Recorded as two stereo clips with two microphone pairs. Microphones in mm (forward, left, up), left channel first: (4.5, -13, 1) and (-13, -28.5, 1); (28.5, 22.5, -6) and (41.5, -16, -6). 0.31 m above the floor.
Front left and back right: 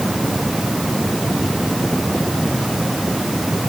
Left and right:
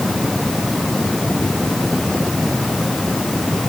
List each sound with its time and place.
Only background noise.